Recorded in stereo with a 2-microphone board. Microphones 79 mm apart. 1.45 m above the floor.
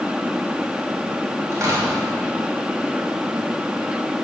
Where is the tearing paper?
40° right (ahead or behind), 3 m.